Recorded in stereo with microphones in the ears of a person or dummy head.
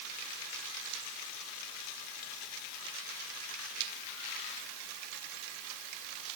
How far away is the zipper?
I don't hear a zipper.